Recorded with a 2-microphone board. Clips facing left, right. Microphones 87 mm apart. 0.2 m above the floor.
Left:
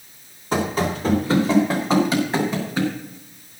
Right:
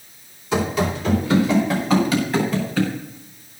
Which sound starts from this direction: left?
Running footsteps, at 0.5 s.